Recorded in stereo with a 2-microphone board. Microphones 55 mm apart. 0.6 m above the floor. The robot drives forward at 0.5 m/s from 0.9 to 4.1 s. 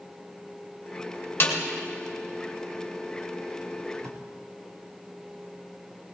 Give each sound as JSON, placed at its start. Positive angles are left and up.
{"t": 1.4, "sound": "a snare drum", "side_deg": 50, "distance_m": 1.9}
{"t": 4.0, "sound": "tape being pulled", "side_deg": -65, "distance_m": 3.0}